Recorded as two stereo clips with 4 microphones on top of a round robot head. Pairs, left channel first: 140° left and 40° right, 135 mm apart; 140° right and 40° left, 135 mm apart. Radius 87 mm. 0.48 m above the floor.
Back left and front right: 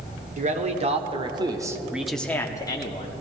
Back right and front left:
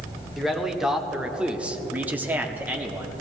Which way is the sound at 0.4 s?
45° right.